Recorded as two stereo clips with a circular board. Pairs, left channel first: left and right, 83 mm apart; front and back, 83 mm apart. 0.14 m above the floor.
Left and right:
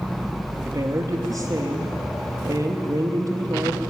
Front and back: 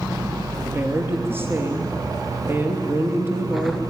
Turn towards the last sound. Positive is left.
turn(degrees=-120)